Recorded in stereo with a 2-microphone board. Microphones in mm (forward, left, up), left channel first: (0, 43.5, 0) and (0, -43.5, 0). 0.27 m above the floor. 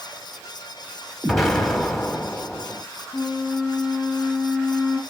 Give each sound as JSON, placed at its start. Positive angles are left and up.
{"t": 1.2, "sound": "an explosion", "side_deg": 0, "distance_m": 1.5}
{"t": 3.1, "sound": "a flute", "side_deg": -15, "distance_m": 2.5}